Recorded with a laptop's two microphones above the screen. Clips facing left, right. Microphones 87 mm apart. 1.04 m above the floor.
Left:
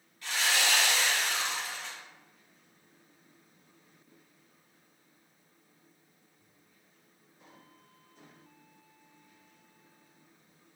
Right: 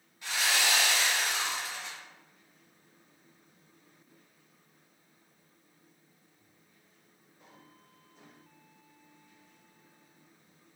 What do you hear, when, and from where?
0.2 s sawing: 20° right (ahead or behind), 1.3 m